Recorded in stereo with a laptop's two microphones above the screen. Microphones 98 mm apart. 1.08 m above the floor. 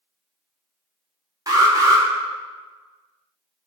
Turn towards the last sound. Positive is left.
turn(degrees=-35)  # may be behind; listen again after turning